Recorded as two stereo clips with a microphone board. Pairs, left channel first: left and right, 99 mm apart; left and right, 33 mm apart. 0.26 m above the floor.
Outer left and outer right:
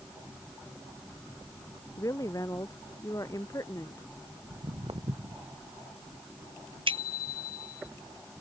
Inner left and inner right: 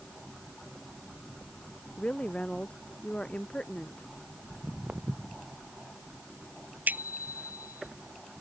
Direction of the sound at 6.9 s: 60° right (ahead or behind).